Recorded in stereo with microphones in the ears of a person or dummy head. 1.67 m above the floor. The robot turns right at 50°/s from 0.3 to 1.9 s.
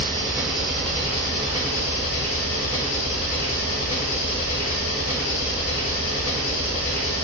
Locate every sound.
0.0 s an engine running: 15° right, 3 m; by 7.2 s 65° left, 3 m